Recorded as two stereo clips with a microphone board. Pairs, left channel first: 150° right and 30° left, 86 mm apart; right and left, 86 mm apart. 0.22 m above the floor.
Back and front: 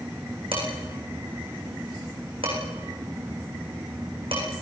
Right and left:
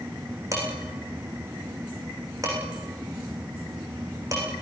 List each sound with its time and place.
0.5 s dishes clattering: 35° left, 9 m